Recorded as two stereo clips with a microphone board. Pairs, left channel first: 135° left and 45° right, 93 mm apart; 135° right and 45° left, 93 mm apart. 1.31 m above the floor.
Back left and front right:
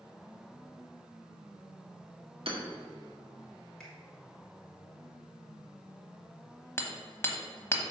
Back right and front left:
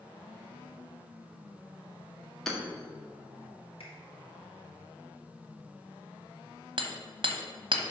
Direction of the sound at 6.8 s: 70° left.